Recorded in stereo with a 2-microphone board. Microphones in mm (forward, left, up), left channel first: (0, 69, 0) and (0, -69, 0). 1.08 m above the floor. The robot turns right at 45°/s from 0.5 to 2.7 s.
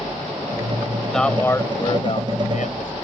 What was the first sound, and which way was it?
A man speaking, straight ahead.